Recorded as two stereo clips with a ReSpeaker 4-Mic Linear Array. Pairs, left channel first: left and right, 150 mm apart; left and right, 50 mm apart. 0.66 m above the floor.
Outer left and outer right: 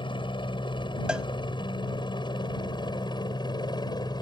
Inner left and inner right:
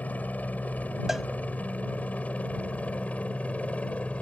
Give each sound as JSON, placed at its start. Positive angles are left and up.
{"t": 0.0, "sound": "a helicopter", "side_deg": 35}
{"t": 1.1, "sound": "a cowbell", "side_deg": -5}